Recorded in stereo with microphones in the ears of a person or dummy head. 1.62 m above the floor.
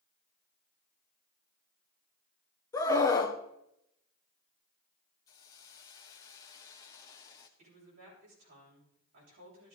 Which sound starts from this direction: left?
A hiss, at 5.3 s.